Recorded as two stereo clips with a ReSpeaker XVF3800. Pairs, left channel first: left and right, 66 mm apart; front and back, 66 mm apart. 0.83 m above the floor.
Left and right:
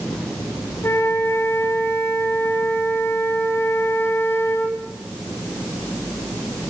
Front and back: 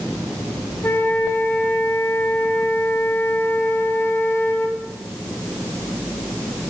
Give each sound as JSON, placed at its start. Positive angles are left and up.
{"t": 0.8, "sound": "a flute", "azimuth_deg": 50, "distance_m": 3.5}